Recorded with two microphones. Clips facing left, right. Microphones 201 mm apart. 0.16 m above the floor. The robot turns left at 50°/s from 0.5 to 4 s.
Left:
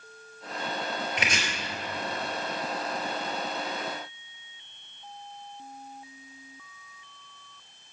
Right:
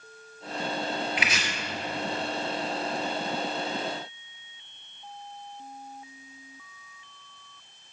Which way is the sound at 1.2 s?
45° left (ahead or behind).